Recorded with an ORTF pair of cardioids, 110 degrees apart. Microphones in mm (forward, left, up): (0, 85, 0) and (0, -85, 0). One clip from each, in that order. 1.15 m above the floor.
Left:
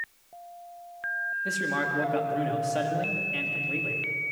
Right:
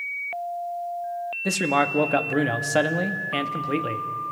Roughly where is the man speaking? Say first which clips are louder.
Right 10 dB; ahead right.